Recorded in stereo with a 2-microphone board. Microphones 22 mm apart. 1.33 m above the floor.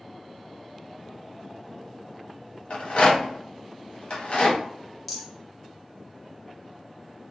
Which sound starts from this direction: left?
A rattle, at 2.7 s.